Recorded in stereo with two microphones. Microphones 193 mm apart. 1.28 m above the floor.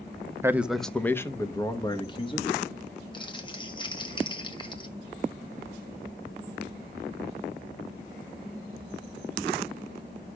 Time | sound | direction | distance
0.4 | a man speaking | 15° right (ahead or behind) | 0.5 m
3.1 | crumpling | 25° left (ahead or behind) | 1.4 m